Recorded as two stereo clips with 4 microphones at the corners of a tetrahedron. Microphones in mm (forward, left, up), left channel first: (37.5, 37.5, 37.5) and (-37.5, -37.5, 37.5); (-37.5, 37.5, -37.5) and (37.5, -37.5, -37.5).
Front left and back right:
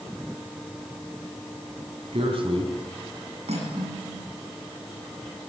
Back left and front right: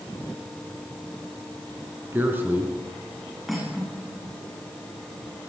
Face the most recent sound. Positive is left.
turn(degrees=-135)